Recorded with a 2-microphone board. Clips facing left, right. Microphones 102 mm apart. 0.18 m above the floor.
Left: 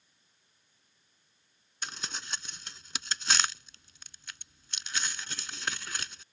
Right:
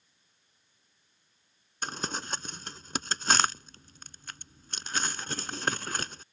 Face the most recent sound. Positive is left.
turn(degrees=-45)  # may be behind; listen again after turning